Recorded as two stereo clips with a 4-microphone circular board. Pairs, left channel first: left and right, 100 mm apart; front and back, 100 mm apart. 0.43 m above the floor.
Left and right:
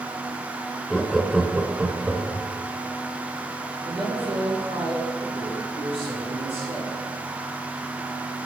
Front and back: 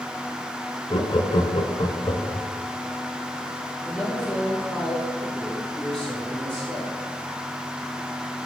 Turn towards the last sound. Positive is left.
turn(degrees=-80)